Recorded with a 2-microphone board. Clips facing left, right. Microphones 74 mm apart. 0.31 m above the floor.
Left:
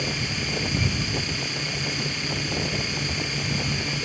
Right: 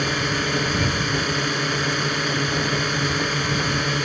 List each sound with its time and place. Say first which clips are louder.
0.0 s a drone: right 7 dB; 60° right (ahead or behind)